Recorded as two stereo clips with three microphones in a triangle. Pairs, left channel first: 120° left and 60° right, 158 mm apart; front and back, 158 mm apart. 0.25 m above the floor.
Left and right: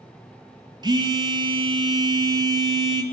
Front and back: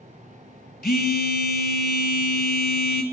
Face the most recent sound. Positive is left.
turn(degrees=0)